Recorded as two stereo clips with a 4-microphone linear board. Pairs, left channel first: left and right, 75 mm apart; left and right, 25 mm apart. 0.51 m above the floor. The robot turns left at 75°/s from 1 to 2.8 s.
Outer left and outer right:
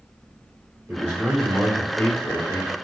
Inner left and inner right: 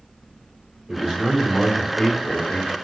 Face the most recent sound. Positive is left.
turn(degrees=65)